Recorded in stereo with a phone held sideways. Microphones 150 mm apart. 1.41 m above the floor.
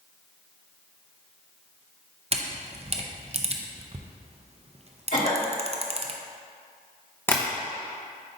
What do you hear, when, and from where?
2.3 s a camera shutter: 45° right (ahead or behind), 0.5 m
5.1 s a cough: 60° left (ahead or behind), 2.0 m
7.3 s tapping: 15° left (ahead or behind), 0.9 m